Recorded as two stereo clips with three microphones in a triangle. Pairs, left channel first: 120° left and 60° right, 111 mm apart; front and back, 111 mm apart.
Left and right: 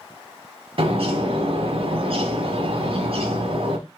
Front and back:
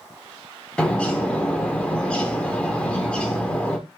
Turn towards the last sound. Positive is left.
turn(degrees=-80)